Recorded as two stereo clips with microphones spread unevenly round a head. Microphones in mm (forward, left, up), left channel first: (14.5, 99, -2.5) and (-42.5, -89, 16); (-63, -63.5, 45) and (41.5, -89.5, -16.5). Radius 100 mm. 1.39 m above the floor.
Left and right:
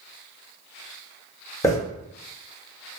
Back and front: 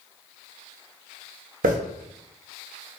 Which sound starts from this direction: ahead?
A hiss, at 1.6 s.